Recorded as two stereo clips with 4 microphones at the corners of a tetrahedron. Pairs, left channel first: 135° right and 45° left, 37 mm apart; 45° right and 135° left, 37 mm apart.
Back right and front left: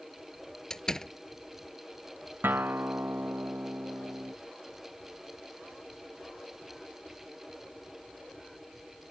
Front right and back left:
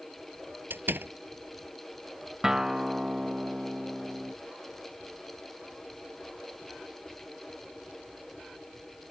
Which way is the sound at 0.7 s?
150° left.